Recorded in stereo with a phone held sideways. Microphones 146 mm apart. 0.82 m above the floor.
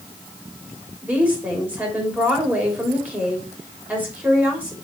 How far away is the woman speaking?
About 3 m.